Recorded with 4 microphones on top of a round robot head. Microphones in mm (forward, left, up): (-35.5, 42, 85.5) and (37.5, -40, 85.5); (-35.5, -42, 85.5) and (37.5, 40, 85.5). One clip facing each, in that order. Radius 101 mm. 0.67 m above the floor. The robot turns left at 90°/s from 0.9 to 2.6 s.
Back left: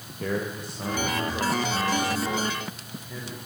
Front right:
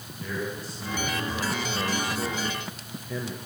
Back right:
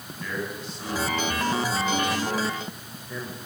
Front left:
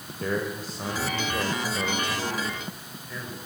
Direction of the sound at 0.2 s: 100° left.